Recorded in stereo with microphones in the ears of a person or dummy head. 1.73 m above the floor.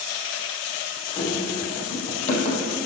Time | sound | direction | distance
1.2 | running footsteps | 45° left (ahead or behind) | 4 m